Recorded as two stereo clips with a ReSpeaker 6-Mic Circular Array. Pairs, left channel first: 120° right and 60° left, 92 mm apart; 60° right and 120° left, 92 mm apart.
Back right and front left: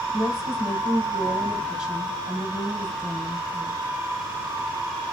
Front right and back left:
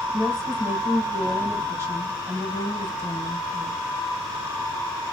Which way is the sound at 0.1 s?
140° left.